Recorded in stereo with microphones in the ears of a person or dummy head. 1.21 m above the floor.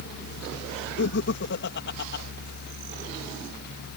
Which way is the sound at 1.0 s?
60° left (ahead or behind).